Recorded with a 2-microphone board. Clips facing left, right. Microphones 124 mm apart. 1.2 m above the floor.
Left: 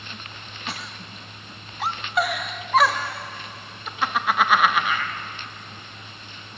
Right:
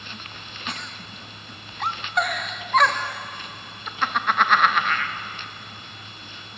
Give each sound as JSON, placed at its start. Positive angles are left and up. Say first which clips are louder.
{"t": 0.7, "sound": "a giggle", "louder": "even", "side_deg": 5, "distance_m": 0.6}